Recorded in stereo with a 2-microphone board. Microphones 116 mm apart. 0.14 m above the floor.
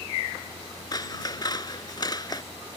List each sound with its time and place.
0.9 s scissors: 35° left (ahead or behind)